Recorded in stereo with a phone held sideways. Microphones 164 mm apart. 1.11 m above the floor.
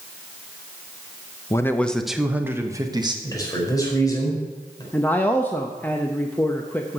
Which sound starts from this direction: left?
A man speaking, at 3.2 s.